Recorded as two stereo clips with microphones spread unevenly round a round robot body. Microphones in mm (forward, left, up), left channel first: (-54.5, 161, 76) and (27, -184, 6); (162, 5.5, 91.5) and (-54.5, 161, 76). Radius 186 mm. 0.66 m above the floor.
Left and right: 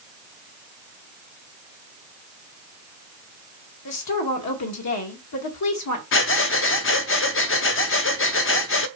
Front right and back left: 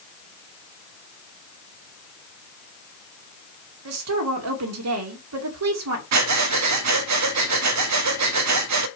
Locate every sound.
3.9 s a woman speaking: 150° left, 2 m
6.1 s breathing: 165° left, 0.8 m